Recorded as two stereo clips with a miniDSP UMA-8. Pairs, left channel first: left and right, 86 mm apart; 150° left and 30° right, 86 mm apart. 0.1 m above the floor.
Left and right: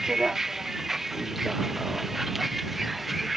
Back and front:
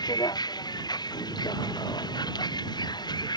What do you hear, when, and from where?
0.0 s a vehicle: 175° right